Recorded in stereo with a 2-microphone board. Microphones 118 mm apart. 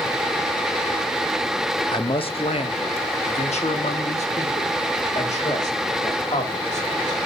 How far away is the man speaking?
About 0.7 m.